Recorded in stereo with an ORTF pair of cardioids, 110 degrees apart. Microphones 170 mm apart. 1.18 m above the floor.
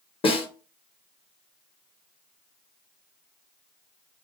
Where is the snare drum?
35° left, 1.1 m.